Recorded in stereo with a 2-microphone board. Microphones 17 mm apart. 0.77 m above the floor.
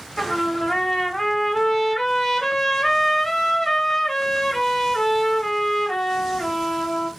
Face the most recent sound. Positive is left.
turn(degrees=25)  # may be behind; listen again after turning